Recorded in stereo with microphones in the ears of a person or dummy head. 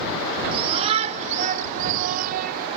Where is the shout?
30° right (ahead or behind); by 2.7 s 55° right (ahead or behind).